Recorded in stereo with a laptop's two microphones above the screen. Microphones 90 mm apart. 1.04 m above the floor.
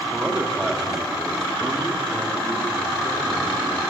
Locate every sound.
0.1 s a man speaking: 15° right (ahead or behind), 2 m; by 3.8 s 30° left (ahead or behind), 3.5 m